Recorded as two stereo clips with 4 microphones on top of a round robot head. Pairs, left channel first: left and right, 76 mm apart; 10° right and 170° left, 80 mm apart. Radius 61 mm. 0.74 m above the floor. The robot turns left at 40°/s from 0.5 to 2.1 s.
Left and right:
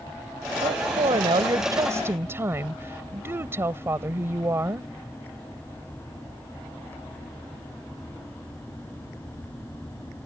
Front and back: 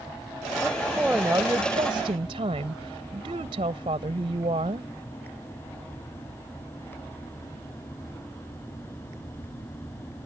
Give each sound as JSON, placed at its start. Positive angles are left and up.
{"t": 0.6, "sound": "a woman speaking", "azimuth_deg": -90}